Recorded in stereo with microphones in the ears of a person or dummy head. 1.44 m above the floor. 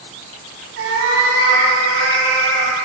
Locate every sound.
0.8 s a cat meowing: 70° right (ahead or behind), 4 m; by 2.8 s 80° right, 5.5 m